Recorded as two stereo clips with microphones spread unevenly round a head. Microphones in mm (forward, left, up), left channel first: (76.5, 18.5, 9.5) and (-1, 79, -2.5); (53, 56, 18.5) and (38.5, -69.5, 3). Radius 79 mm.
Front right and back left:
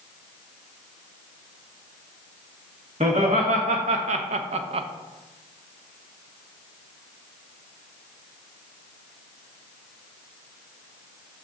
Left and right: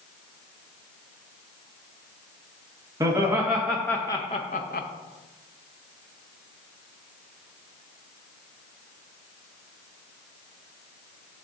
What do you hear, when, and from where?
3.0 s laughter: 170° right, 1.3 m; by 4.9 s 115° left, 0.8 m